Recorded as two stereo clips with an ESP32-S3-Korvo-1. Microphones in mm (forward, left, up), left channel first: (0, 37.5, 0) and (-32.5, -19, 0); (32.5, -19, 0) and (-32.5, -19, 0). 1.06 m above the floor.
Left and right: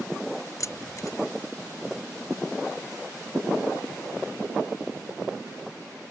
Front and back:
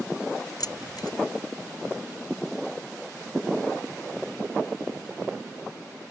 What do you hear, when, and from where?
0.6 s keys jangling: 20° left